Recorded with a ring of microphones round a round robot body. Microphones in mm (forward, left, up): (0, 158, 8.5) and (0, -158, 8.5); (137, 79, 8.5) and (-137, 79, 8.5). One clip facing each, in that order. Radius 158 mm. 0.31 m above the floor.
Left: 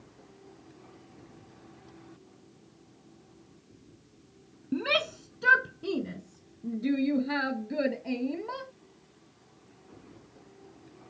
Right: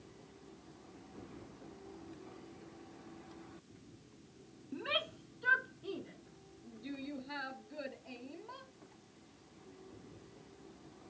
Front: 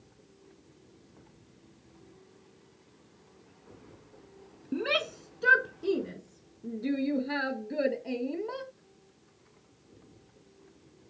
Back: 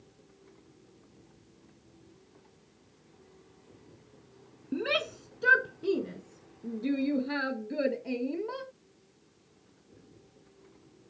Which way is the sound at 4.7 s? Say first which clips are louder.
Left 12 dB, even; 90° left.